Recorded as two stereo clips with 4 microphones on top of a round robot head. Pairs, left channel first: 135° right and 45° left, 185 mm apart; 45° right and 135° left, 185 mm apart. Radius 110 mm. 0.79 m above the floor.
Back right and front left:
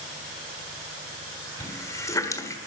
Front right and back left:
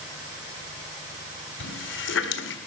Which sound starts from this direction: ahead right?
A running tap, at 1.6 s.